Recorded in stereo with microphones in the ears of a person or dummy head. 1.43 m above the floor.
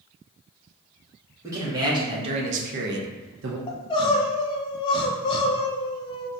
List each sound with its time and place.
1.4 s a man speaking: 20° right (ahead or behind), 1.8 m; by 3.6 s 55° right (ahead or behind), 0.8 m
3.7 s crying: 30° left (ahead or behind), 0.6 m